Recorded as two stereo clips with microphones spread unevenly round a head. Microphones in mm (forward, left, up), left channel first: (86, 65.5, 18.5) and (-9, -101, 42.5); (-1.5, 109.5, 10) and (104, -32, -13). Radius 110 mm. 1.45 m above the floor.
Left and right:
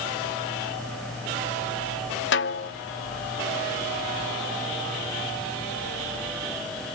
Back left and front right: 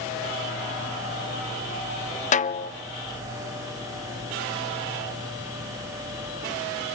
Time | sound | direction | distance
2.3 | a snare drum | 95° left | 0.6 m